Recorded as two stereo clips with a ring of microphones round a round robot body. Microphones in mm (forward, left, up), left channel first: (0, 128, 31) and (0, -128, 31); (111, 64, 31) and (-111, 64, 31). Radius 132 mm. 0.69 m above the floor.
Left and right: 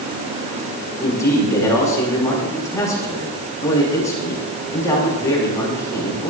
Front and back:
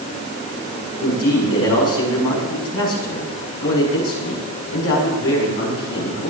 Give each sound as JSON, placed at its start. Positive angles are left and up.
{"t": 1.0, "sound": "a man speaking", "azimuth_deg": 10, "distance_m": 7.5}